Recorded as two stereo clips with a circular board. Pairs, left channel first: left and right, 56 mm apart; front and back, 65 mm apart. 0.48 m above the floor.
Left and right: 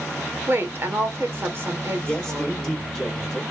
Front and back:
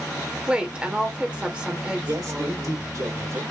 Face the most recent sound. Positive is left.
turn(degrees=170)